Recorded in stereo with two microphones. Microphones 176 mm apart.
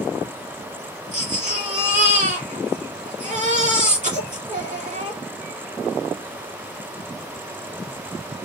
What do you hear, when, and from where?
1.1 s a baby crying: 45° right (ahead or behind), 2.5 m